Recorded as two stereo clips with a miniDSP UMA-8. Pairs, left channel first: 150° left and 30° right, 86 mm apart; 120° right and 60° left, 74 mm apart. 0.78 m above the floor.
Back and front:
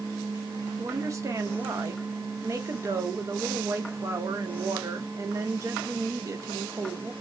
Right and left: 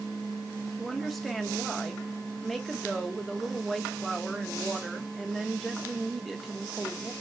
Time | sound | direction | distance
0.8 | a woman speaking | 35° right | 0.8 m